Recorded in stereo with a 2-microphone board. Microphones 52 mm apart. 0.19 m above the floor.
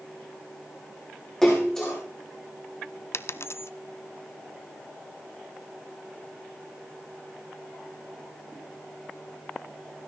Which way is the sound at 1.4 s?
10° left (ahead or behind).